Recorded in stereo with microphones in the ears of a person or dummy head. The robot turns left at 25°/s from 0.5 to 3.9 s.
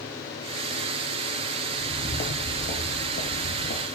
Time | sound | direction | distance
1.7 | footsteps | 25° left (ahead or behind) | 1.3 m